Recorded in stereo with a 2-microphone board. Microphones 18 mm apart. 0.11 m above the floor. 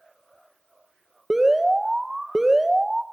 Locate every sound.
1.3 s an alarm: 20° right (ahead or behind), 1.7 m